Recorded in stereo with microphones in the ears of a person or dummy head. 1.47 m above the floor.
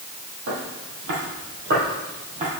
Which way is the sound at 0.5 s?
55° right (ahead or behind).